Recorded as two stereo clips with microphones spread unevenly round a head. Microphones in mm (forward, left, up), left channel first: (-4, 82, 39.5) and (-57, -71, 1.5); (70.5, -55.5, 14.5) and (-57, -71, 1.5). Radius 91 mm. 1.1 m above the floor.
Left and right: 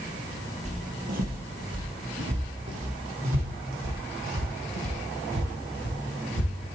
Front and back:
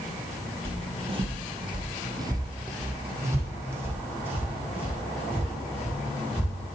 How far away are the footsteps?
About 1.4 m.